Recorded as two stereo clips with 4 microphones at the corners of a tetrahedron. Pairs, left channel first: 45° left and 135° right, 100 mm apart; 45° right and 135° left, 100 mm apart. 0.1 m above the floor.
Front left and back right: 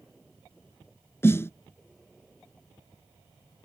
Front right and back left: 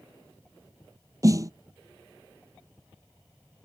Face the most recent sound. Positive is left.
turn(degrees=100)